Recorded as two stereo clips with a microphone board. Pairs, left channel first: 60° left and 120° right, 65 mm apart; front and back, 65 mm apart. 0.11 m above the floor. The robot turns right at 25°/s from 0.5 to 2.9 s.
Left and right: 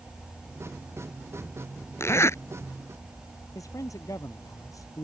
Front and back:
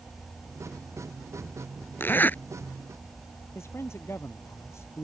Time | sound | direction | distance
2.0 | a zipper | 40° left | ?
3.5 | a man speaking | 40° left | ?